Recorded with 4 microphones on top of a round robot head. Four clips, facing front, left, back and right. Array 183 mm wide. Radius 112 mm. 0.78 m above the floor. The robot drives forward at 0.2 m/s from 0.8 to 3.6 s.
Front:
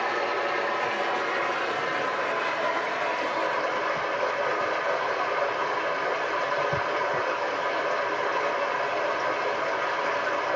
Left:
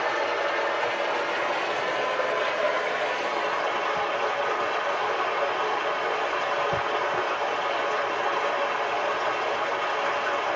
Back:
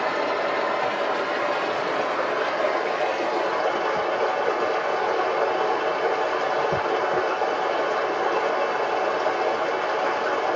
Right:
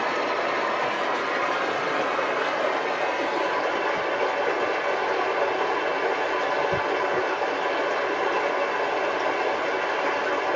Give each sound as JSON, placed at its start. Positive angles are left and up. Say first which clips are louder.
{"t": 0.0, "sound": "running water", "louder": "right 1 dB, back 3 dB", "azimuth_deg": -145, "distance_m": 1.6}